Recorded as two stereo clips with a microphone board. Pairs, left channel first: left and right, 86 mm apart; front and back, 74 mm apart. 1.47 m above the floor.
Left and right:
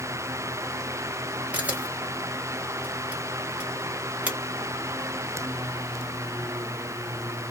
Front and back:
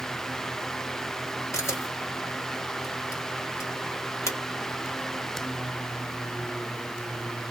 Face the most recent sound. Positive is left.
turn(degrees=-25)